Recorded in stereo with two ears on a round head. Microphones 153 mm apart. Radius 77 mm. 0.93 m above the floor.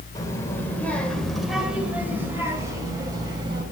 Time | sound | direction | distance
0.1 | a child speaking | 20° left (ahead or behind) | 3 m